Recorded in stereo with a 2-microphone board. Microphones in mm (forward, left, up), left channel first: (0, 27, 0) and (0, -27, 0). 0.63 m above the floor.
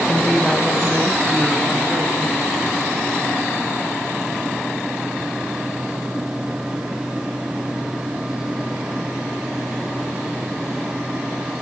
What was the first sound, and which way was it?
A woman speaking, 25° left (ahead or behind).